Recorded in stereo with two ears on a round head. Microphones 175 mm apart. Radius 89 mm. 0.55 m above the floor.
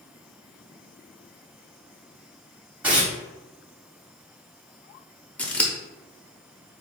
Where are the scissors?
5° left (ahead or behind), 0.6 m.